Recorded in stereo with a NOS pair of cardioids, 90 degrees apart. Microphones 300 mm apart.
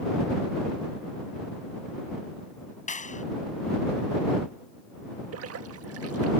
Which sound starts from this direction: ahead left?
A clap, at 2.9 s.